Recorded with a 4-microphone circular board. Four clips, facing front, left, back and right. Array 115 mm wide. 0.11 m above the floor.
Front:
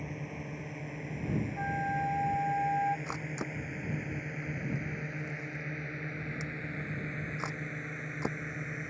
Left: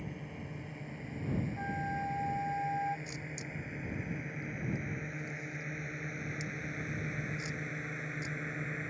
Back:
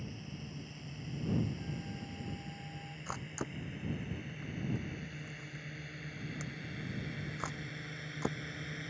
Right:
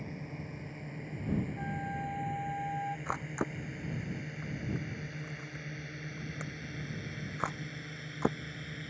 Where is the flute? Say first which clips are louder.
Left 1 dB, front 12 dB; 5° left.